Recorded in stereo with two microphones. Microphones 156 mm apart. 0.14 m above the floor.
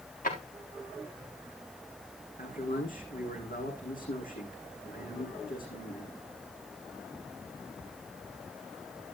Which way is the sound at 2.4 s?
65° left (ahead or behind).